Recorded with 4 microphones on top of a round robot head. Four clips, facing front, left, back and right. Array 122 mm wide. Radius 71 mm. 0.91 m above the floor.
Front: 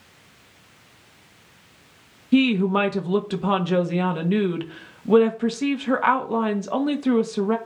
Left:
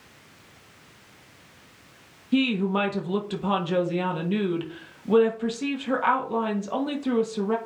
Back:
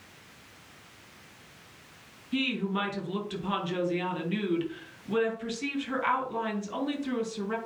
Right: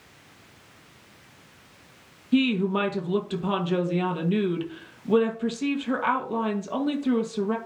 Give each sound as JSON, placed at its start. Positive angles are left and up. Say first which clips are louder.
{"t": 2.3, "sound": "a woman speaking", "louder": "right 1 dB, front 12 dB", "azimuth_deg": 0, "distance_m": 1.4}